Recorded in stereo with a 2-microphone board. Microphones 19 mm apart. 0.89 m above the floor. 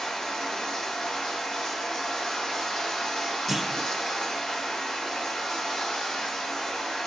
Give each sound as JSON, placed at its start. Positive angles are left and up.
{"t": 0.0, "sound": "running water", "side_deg": 75, "distance_m": 3.5}
{"t": 3.5, "sound": "a clunk", "side_deg": 5, "distance_m": 1.9}